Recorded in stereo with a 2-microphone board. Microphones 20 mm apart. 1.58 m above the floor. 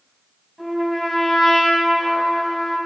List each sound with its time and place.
0.6 s a trumpet: 5° left (ahead or behind), 5.5 m